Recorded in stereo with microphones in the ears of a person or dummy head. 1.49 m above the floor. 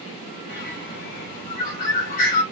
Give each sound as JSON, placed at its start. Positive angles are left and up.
{"t": 0.5, "sound": "a bird", "side_deg": 55, "distance_m": 2.0}